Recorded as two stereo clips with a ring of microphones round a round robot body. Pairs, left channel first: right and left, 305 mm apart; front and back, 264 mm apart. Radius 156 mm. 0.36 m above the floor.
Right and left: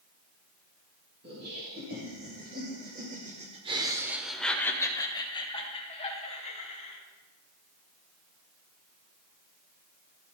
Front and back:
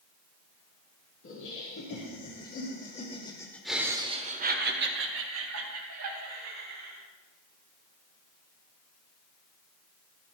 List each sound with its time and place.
1.2 s laughter: 35° left, 3.5 m; by 7.0 s 155° right, 4 m